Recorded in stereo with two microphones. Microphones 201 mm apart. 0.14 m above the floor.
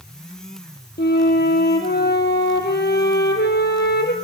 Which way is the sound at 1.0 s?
55° left (ahead or behind).